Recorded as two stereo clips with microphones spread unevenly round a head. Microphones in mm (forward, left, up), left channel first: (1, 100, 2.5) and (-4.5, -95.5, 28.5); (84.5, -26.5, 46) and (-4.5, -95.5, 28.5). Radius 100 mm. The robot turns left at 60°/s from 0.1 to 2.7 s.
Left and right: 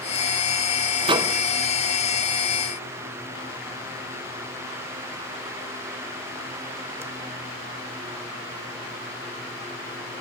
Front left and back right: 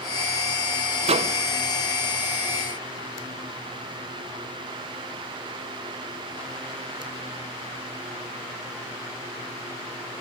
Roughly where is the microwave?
Behind right.